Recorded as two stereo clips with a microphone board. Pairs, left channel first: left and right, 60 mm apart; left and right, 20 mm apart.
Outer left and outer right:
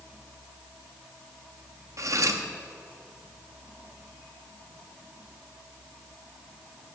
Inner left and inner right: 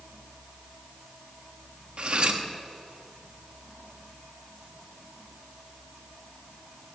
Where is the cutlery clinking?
55° right (ahead or behind), 1.0 m.